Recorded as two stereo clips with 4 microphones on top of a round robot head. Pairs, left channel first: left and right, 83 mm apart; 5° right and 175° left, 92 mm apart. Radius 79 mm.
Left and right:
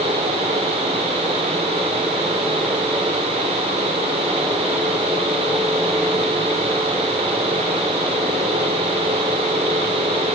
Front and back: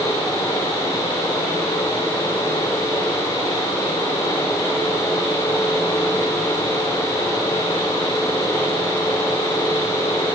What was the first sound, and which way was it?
Only background noise.